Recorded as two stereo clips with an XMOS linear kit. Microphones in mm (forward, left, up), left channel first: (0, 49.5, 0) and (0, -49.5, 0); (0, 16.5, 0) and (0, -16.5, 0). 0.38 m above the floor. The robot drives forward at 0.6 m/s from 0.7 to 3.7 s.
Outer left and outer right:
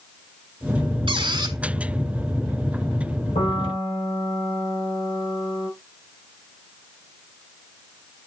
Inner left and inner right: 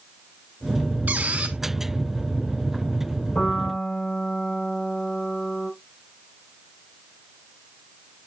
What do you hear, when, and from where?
1.1 s a squeak: 60° right (ahead or behind), 0.8 m; by 1.6 s 45° right (ahead or behind), 1.0 m
3.4 s a piano: 80° left, 6 m